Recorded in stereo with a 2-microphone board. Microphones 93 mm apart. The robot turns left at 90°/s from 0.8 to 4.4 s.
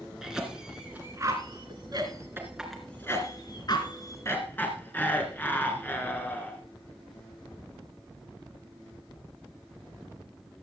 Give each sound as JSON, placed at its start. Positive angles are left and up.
{"t": 0.2, "sound": "a cough", "side_deg": -5, "distance_m": 2.0}